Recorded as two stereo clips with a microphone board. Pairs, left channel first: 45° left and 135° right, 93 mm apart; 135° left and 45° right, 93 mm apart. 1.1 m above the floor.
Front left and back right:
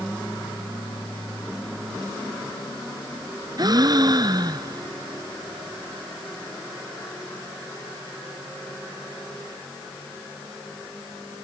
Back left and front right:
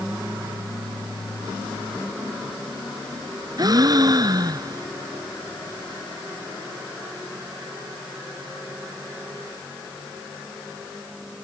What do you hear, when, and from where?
3.6 s a gasp: 90° right